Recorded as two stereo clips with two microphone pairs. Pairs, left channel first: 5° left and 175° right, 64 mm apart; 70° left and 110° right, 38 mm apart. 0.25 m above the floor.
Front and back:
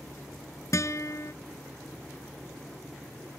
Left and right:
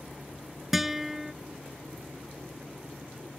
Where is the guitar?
30° right.